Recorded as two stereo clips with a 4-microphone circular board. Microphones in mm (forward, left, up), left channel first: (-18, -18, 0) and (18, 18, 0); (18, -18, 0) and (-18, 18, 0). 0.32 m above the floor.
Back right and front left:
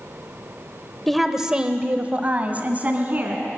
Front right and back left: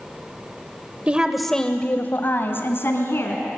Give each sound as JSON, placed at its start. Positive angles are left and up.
{"t": 1.1, "sound": "a woman speaking", "azimuth_deg": 145, "distance_m": 1.0}